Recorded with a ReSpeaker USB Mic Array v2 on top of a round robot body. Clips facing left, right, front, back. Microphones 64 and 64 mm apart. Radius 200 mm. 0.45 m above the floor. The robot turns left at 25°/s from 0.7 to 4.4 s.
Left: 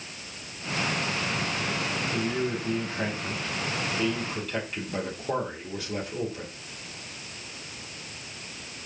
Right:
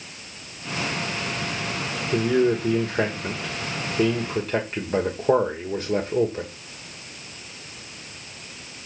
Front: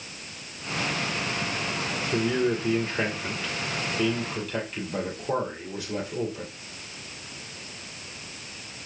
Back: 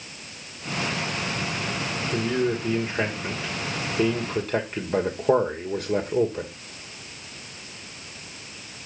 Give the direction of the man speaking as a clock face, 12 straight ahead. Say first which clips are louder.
Right 12 dB, even; 3 o'clock.